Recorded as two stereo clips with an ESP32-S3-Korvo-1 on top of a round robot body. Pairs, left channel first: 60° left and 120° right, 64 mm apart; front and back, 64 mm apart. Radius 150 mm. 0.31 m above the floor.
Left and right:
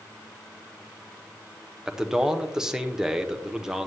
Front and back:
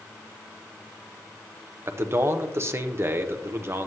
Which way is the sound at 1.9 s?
160° left.